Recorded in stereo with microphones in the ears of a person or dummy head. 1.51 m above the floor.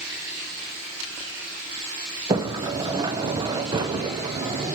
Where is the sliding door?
20° right (ahead or behind), 0.9 m.